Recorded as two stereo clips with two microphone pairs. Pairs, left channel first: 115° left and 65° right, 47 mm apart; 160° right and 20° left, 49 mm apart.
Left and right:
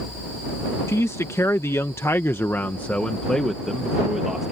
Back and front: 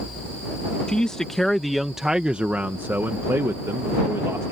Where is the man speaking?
130° left; by 4.5 s 15° left.